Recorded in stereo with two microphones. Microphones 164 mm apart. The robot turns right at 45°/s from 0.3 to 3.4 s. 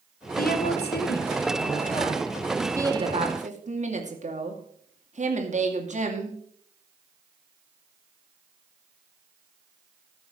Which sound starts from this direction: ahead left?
A woman speaking, at 0.4 s.